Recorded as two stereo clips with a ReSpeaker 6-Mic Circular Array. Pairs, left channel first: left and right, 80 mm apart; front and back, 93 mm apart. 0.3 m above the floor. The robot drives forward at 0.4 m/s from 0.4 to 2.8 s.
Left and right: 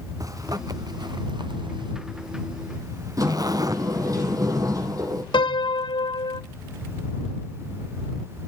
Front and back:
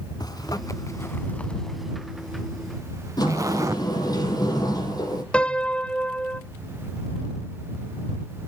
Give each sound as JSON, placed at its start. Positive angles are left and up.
{"t": 0.2, "sound": "a zipper", "azimuth_deg": -45, "distance_m": 0.8}
{"t": 3.2, "sound": "a sliding door", "azimuth_deg": -45, "distance_m": 4.5}
{"t": 5.3, "sound": "a piano", "azimuth_deg": 80, "distance_m": 0.6}